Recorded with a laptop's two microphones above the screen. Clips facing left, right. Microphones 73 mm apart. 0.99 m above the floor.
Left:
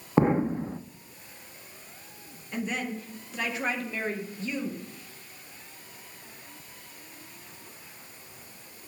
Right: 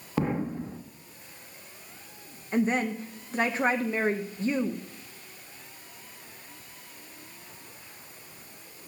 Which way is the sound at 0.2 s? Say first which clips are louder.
Left 6 dB; 25° left (ahead or behind).